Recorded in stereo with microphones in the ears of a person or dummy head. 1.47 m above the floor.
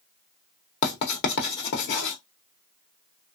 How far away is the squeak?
No squeak in this recording.